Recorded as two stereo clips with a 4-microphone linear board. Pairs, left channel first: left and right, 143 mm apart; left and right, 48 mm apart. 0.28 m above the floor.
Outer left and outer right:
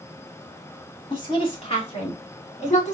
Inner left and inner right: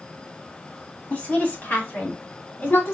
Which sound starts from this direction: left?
A woman speaking, at 1.1 s.